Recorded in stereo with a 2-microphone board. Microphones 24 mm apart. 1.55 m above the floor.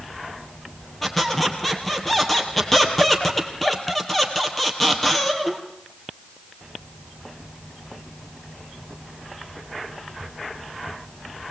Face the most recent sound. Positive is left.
turn(degrees=15)  # may be behind; listen again after turning